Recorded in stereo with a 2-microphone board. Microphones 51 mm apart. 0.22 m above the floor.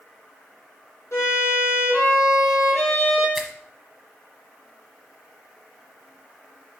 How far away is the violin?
About 3.5 m.